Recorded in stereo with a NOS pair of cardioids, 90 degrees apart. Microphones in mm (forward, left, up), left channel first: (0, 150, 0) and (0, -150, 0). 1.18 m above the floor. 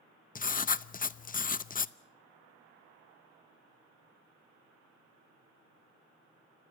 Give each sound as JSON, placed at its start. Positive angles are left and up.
{"t": 0.3, "sound": "writing", "azimuth_deg": 30, "distance_m": 0.8}